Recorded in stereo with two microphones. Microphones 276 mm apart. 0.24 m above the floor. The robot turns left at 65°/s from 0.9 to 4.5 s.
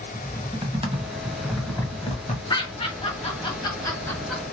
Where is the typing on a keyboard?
20° right (ahead or behind), 1.0 m; by 2.4 s 30° left (ahead or behind), 1.0 m.